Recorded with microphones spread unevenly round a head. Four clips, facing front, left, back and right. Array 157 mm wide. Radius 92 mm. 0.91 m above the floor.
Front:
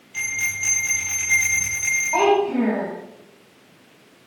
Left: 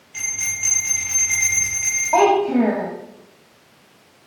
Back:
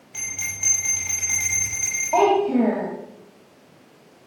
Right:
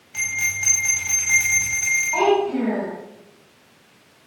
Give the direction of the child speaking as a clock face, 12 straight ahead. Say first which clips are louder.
Left 4 dB, back 1 dB; 7 o'clock.